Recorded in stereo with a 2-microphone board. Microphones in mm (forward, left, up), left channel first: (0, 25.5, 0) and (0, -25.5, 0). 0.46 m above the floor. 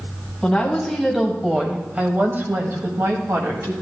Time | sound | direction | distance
0.4 | a woman speaking | 10° left (ahead or behind) | 3 m